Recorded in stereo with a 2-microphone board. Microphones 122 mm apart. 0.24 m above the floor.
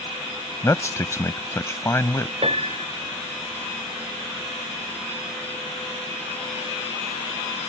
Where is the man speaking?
25° left (ahead or behind).